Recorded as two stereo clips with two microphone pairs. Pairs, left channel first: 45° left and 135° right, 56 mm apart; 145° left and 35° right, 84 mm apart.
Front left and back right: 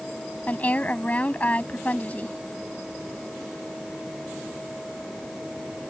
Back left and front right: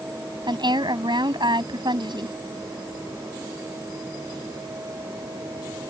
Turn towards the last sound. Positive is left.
turn(degrees=-20)